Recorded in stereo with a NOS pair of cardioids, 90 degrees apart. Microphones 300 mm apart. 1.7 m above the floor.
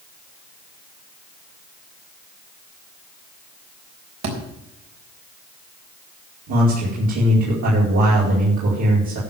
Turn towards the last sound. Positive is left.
turn(degrees=-70)